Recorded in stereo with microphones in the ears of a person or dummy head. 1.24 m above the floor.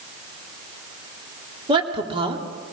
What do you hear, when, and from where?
1.7 s a woman speaking: 30° right (ahead or behind), 3 m